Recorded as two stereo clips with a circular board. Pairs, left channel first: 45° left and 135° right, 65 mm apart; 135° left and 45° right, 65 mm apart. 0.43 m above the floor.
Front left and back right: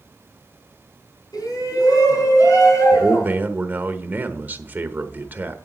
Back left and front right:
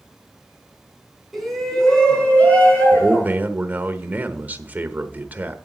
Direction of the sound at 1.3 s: 45° left.